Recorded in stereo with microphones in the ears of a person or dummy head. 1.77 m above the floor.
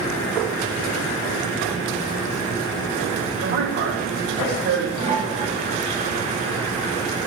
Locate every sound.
3.4 s a man speaking: 60° right (ahead or behind), 9 m
5.0 s a toilet flushing: 40° right (ahead or behind), 5.5 m